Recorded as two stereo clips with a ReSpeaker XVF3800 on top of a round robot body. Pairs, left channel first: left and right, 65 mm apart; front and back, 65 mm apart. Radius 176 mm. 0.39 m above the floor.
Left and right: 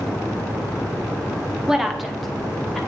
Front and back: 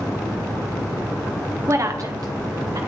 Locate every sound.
1.7 s a woman speaking: 170° right, 1.1 m; by 2.8 s 170° left, 2 m